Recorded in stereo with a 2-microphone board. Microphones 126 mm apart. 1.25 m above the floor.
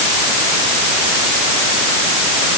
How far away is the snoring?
No snoring in this recording.